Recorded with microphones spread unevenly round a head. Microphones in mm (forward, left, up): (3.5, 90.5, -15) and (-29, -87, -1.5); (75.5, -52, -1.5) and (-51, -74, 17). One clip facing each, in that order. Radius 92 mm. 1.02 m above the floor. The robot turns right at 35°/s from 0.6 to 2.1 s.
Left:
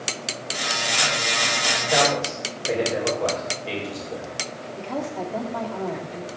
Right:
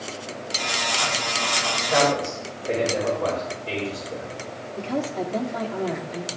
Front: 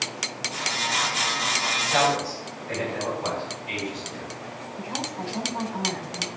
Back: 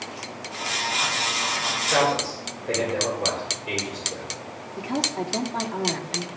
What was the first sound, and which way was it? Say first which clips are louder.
A man speaking: right 1 dB, back 1 dB; 150° left.